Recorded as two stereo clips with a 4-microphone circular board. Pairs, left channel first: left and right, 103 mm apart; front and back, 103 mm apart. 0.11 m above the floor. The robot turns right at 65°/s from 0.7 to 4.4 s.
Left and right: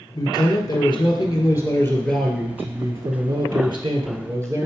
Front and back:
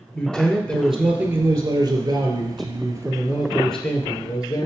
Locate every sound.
0.1 s a man speaking: 80° left, 1.8 m; by 4.7 s 40° right, 1.8 m